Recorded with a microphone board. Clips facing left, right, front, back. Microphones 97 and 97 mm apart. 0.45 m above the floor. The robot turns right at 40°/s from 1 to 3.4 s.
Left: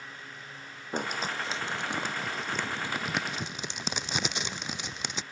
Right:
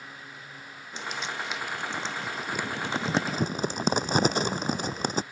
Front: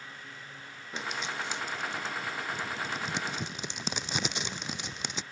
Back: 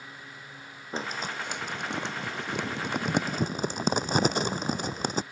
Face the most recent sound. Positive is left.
turn(degrees=-135)